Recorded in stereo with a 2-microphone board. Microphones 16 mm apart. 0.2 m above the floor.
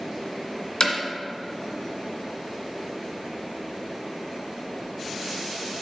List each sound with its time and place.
0.8 s hammering: 50° left (ahead or behind), 1.9 m